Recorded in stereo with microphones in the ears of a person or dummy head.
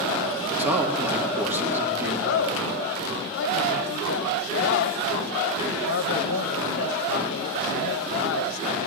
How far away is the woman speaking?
About 1.0 m.